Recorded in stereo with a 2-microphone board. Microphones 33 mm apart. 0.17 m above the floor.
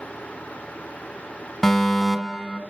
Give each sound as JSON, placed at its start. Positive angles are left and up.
{"t": 1.6, "sound": "a fire alarm", "side_deg": 5, "distance_m": 2.0}